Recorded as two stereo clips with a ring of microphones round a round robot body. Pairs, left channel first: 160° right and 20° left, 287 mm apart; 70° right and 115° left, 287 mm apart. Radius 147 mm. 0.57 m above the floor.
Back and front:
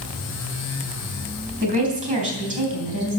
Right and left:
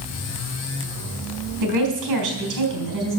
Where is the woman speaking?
85° left, 4 m.